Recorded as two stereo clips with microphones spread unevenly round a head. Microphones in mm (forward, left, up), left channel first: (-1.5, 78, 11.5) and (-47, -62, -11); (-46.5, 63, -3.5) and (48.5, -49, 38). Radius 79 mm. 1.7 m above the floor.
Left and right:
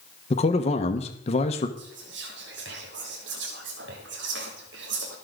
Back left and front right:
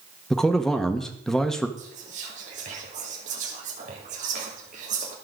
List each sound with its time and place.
0.3 s a man speaking: 35° left, 1.1 m
1.8 s whispering: 95° right, 1.5 m